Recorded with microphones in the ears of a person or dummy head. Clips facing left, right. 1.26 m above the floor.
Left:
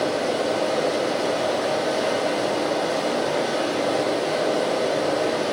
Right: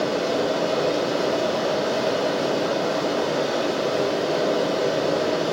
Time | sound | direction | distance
0.0 | running water | 30° left (ahead or behind) | 1.2 m